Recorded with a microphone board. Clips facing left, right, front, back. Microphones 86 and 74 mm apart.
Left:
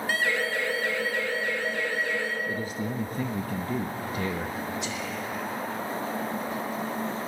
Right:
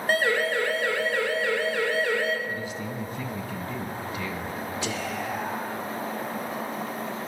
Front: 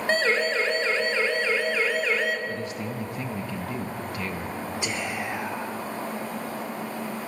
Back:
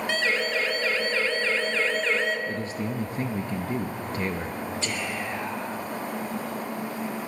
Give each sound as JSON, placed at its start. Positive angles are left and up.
{"t": 0.1, "sound": "a siren", "azimuth_deg": -50, "distance_m": 2.5}
{"t": 2.5, "sound": "a man speaking", "azimuth_deg": 130, "distance_m": 0.9}
{"t": 4.8, "sound": "whispering", "azimuth_deg": -75, "distance_m": 2.5}